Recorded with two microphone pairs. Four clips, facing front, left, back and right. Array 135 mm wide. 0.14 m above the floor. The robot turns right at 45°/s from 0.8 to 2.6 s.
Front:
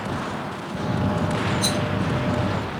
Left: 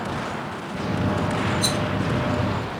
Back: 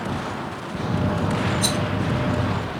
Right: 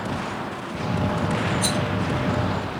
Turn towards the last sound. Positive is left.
turn(degrees=-120)